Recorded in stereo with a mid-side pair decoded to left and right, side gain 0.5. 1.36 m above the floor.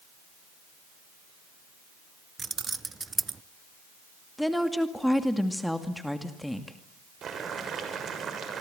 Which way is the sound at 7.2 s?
50° right.